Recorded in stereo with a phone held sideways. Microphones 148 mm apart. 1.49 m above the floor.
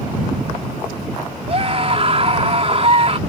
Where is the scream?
45° right (ahead or behind).